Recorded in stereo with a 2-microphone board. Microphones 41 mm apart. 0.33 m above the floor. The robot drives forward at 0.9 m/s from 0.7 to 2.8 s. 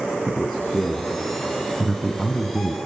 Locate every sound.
0.3 s a man speaking: 5° left (ahead or behind), 3.5 m; by 2.8 s 10° left (ahead or behind), 1.9 m